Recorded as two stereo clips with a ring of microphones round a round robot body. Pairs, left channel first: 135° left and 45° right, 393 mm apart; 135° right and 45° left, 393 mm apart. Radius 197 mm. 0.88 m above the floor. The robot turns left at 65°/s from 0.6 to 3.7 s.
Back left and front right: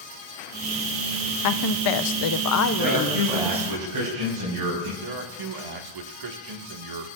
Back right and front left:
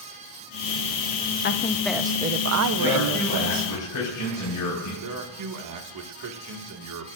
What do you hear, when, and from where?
1.4 s a woman speaking: 165° left, 0.7 m; by 3.7 s 20° left, 0.7 m
2.8 s a man speaking: 30° right, 4 m; by 4.9 s 90° right, 4 m
5.0 s a man speaking: 5° right, 1.7 m